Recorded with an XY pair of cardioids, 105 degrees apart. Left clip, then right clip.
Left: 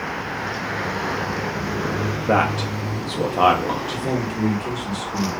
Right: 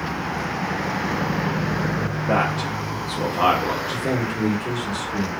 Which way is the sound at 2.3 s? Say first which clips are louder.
Left 2 dB; 30° left.